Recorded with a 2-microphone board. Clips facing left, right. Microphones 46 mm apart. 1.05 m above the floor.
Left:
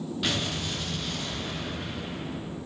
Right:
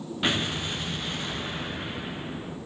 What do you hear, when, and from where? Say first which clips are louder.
0.2 s an explosion: right 4 dB; 25° right (ahead or behind), 5 m